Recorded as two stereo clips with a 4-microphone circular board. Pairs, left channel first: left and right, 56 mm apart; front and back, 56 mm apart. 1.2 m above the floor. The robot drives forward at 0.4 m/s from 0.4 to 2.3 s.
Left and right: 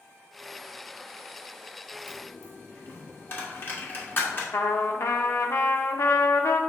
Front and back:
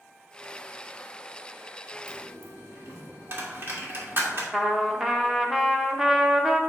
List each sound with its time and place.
2.1 s a dropped coin: 135° left, 1.5 m
4.5 s a trumpet: 100° left, 0.6 m